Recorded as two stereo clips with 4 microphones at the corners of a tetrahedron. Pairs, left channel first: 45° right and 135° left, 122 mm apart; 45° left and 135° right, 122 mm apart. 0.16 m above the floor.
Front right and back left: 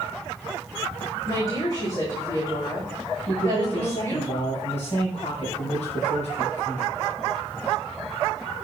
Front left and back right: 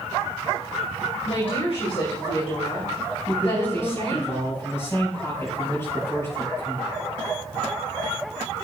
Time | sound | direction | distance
1.2 | a woman speaking | 10° left | 6 m
3.3 | a man speaking | 25° right | 5.5 m